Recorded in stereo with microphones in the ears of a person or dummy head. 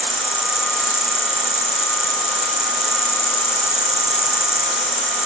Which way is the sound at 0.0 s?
15° left (ahead or behind).